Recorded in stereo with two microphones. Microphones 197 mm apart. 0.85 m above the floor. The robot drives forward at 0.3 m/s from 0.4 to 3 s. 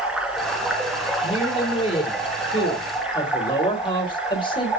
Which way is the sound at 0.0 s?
5° right (ahead or behind).